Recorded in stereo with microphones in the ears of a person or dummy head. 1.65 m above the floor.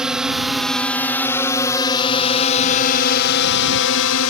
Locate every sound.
0.0 s a drone: 5° right (ahead or behind); by 4.3 s 75° left (ahead or behind)